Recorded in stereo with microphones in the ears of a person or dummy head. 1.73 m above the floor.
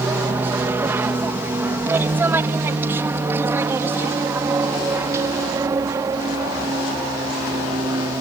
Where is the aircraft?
10° right (ahead or behind); by 8.2 s 15° right (ahead or behind).